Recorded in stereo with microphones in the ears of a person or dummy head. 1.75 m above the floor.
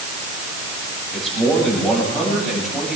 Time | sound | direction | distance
1.1 | a man speaking | centre (ahead or behind) | 8.5 m